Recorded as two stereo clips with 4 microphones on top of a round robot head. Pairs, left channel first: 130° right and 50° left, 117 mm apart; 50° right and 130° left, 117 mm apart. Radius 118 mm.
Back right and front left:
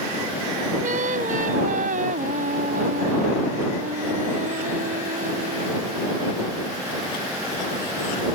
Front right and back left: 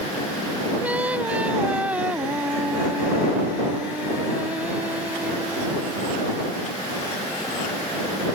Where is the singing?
50° left.